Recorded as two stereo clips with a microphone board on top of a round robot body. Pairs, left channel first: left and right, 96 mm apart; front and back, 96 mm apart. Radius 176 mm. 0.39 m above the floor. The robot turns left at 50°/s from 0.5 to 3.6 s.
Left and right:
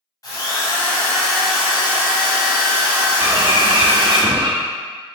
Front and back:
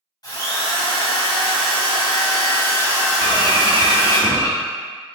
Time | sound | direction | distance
0.2 | a drill | 40° left | 1.8 m
3.2 | a bird | 35° right | 0.9 m